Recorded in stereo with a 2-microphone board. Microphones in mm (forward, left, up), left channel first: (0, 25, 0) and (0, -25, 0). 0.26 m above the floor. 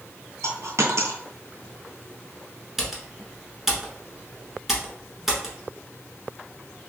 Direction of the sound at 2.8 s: 5° right (ahead or behind).